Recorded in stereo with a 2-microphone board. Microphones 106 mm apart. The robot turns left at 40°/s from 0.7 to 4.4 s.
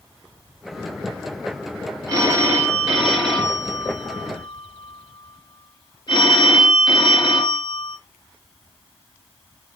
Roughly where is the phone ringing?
Behind right.